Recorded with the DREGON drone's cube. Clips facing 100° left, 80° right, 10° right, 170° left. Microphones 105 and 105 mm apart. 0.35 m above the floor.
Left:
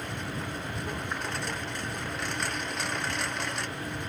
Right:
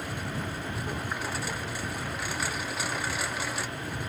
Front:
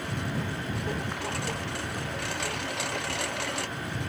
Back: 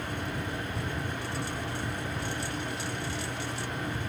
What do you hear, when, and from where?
0.0 s a lawn mower: 5° left